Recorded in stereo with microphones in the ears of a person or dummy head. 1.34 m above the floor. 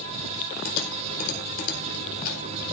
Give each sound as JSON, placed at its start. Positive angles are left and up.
{"t": 0.7, "sound": "typing on a keyboard", "side_deg": 50, "distance_m": 3.5}